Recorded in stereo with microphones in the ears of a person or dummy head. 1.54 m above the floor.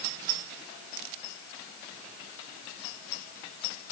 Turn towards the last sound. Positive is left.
No sound to turn to.